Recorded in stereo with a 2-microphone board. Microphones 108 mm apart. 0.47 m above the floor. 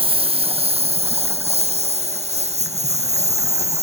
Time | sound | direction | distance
0.0 | a lawn mower | 60° right (ahead or behind) | ?